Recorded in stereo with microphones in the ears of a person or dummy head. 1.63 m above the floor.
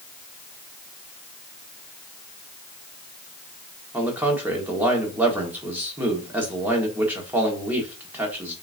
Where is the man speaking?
10° right (ahead or behind), 1.3 m.